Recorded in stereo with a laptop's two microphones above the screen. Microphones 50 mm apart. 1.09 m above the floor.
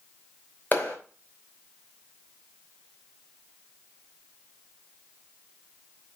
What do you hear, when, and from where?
0.7 s a clap: 35° left (ahead or behind), 4.5 m